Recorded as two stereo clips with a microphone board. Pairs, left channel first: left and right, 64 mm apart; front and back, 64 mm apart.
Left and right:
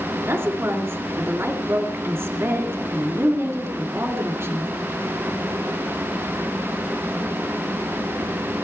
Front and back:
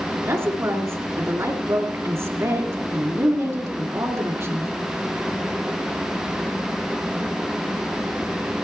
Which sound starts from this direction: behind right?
A woman speaking, at 0.2 s.